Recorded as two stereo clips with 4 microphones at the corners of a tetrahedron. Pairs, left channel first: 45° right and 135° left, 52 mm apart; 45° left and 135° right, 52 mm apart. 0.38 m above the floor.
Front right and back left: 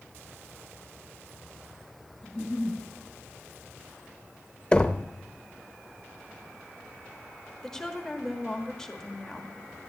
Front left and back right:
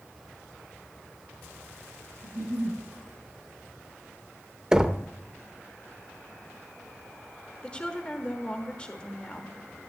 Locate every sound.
2.2 s a giggle: 130° right, 4 m
4.7 s knocking: 80° right, 0.6 m
7.6 s a woman speaking: 20° left, 1.3 m